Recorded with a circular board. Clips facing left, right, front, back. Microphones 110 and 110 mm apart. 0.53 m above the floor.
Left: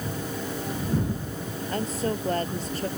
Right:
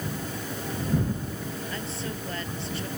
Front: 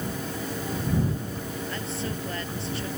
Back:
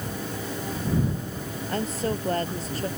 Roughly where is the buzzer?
No buzzer in this recording.